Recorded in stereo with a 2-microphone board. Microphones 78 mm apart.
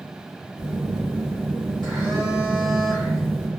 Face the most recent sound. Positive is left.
turn(degrees=-70)  # may be behind; listen again after turning